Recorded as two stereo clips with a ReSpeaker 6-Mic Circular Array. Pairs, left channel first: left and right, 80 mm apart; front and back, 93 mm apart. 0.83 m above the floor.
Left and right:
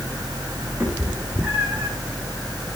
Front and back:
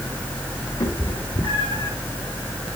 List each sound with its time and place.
0.8 s a cat meowing: 20° right, 7.5 m; by 1.9 s 15° right, 6.5 m